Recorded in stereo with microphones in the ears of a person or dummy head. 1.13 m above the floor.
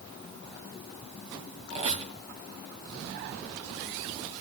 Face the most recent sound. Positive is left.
turn(degrees=-35)  # may be behind; listen again after turning